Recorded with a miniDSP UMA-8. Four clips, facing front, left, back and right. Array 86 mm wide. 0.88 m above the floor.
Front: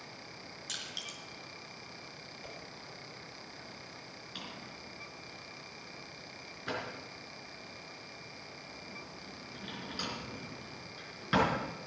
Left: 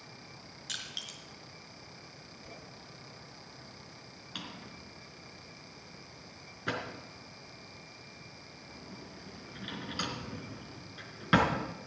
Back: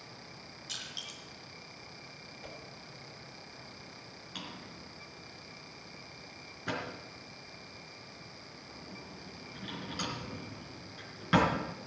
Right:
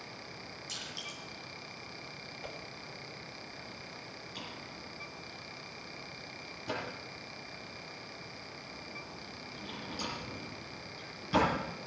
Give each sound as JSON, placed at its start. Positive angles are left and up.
{"t": 0.7, "sound": "crushing", "azimuth_deg": 75, "distance_m": 4.5}
{"t": 2.4, "sound": "a whoosh", "azimuth_deg": -95, "distance_m": 3.0}
{"t": 4.3, "sound": "a drawer", "azimuth_deg": 100, "distance_m": 3.5}